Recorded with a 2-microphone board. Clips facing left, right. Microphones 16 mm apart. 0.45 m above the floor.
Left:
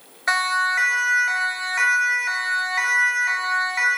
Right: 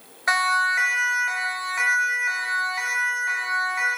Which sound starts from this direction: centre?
A siren, at 0.3 s.